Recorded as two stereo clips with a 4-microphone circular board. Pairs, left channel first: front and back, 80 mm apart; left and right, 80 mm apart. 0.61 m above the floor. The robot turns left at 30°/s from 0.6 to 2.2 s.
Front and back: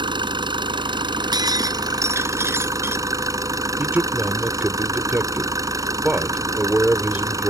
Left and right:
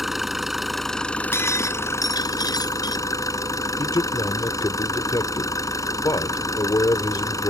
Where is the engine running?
175° right; by 7.5 s 135° left.